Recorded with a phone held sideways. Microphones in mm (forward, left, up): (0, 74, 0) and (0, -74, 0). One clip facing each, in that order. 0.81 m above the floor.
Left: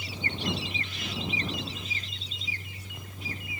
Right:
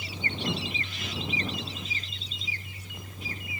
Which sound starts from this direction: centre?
A fan, at 0.0 s.